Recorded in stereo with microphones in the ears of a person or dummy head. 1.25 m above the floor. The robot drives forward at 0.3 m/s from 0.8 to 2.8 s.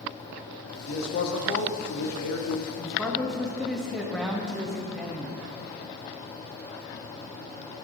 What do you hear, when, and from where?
0.9 s a man speaking: 55° left (ahead or behind), 1.0 m; by 2.7 s 70° left (ahead or behind), 0.9 m
2.8 s a man speaking: centre (ahead or behind), 0.7 m